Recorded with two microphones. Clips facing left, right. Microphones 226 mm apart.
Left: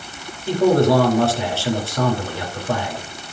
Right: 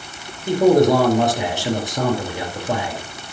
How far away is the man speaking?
About 5 m.